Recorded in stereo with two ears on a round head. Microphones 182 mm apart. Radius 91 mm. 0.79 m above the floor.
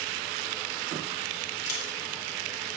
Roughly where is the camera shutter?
Left.